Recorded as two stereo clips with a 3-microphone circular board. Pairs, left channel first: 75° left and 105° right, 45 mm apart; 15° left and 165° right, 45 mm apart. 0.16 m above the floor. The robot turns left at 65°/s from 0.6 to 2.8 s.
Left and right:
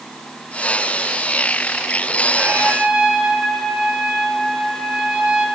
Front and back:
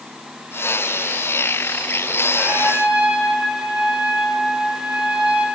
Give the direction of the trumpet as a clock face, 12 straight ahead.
4 o'clock.